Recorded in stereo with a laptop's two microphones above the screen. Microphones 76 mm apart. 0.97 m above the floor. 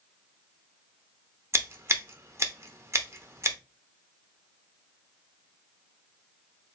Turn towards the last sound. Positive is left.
turn(degrees=-35)  # may be behind; listen again after turning